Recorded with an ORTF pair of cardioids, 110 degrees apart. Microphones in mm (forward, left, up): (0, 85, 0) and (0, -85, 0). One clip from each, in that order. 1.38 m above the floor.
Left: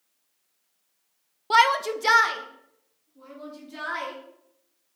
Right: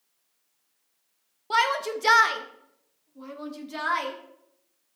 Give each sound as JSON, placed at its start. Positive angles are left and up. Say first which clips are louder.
{"t": 1.5, "sound": "a shout", "louder": "left 5 dB", "azimuth_deg": 25, "distance_m": 1.0}